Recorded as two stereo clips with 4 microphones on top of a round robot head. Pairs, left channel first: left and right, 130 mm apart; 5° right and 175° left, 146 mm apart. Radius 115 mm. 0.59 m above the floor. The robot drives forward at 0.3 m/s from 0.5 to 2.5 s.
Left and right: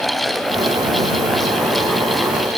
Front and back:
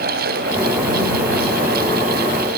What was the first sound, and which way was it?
Only background noise.